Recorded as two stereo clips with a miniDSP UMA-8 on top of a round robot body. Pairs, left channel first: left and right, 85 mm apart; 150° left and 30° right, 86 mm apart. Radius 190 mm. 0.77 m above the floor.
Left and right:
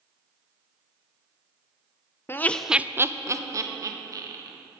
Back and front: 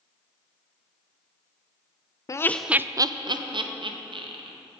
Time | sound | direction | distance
2.3 | laughter | 135° left | 0.5 m